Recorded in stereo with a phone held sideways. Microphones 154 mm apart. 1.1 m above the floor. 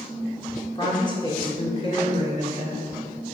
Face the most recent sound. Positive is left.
turn(degrees=50)  # may be behind; listen again after turning